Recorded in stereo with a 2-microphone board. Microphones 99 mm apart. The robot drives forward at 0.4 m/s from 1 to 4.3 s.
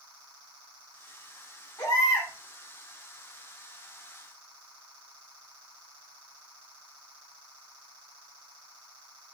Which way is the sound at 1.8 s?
40° left (ahead or behind).